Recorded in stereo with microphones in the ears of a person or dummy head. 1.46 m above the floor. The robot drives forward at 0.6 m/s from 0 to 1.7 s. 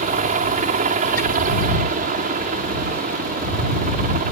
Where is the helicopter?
40° right (ahead or behind).